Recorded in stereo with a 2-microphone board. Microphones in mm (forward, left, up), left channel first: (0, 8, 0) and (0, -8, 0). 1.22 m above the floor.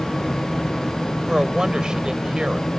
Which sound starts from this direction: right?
A woman speaking, at 1.3 s.